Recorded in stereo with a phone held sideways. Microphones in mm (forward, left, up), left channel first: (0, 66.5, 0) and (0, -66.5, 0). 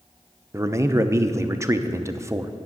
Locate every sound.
0.5 s a man speaking: 25° right (ahead or behind), 0.7 m